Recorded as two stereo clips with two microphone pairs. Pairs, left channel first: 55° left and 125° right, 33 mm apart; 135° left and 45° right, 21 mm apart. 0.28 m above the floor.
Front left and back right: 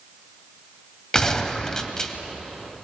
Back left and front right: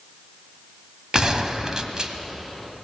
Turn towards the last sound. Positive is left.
turn(degrees=-5)